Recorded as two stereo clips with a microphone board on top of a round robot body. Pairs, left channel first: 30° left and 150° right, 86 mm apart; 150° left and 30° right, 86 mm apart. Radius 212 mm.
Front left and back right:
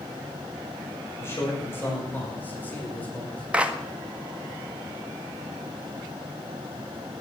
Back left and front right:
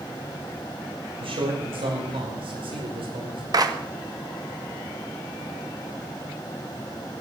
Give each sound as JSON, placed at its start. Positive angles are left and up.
{"t": 1.2, "sound": "a man speaking", "azimuth_deg": -35, "distance_m": 6.0}
{"t": 3.5, "sound": "a clap", "azimuth_deg": -75, "distance_m": 1.9}